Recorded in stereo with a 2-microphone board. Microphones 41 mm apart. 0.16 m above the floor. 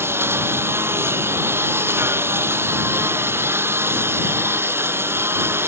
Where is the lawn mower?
80° right.